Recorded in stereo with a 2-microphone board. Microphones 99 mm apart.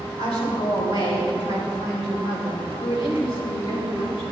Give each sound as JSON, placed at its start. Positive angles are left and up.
{"t": 0.2, "sound": "a woman speaking", "side_deg": 80, "distance_m": 5.0}
{"t": 2.8, "sound": "a woman speaking", "side_deg": 55, "distance_m": 2.5}